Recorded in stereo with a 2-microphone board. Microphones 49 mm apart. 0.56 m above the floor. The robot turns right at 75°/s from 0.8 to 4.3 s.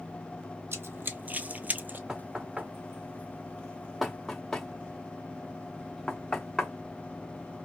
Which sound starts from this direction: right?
Running footsteps, at 0.7 s.